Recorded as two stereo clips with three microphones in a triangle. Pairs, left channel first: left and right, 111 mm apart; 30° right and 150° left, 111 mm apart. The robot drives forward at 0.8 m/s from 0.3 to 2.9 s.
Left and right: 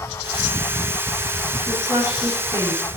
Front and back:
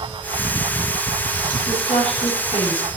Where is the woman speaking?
25° right, 10 m; by 2.9 s 30° right, 9 m.